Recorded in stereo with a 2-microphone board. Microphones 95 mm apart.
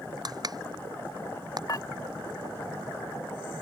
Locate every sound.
0.2 s crushing: 45° right (ahead or behind)
1.7 s dishes clattering: 40° left (ahead or behind)